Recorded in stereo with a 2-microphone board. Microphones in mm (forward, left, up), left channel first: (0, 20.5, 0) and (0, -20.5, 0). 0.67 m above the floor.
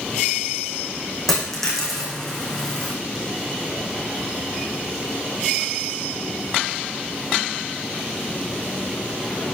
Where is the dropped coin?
5° left (ahead or behind), 4 m.